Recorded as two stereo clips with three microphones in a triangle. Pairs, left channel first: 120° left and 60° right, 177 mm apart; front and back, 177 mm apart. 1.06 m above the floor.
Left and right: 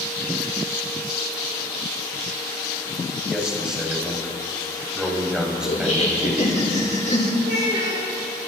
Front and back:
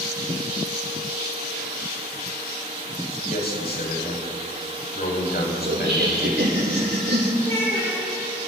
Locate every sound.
3.3 s a man speaking: 25° left, 6 m
5.7 s laughter: 160° left, 4 m
7.4 s a child speaking: 70° right, 8 m